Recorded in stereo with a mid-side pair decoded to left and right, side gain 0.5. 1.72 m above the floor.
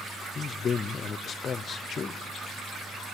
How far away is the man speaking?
About 0.6 m.